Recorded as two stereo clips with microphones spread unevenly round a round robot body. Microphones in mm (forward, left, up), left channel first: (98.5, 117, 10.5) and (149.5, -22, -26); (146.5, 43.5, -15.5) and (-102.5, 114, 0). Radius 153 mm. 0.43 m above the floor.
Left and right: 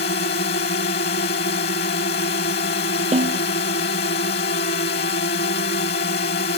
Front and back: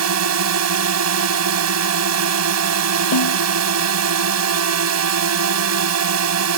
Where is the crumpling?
No crumpling in this recording.